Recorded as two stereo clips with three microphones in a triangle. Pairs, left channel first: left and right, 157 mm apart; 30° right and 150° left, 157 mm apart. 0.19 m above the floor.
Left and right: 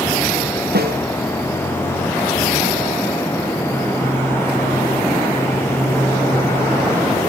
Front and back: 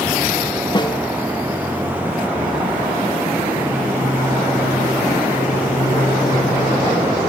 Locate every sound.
0.7 s a snare drum: 90° right